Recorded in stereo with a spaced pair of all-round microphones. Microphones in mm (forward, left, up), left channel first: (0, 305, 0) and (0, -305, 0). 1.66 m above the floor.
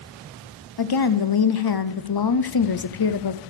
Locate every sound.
0.8 s a woman speaking: 40° left (ahead or behind), 0.5 m